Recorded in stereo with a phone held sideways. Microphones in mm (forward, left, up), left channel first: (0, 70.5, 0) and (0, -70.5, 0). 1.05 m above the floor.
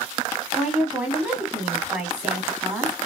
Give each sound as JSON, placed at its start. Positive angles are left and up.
{"t": 0.5, "sound": "a woman speaking", "side_deg": -10, "distance_m": 1.6}